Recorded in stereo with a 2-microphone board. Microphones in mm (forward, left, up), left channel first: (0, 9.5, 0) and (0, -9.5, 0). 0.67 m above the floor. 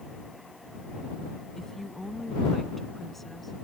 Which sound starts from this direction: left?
A woman speaking, at 1.6 s.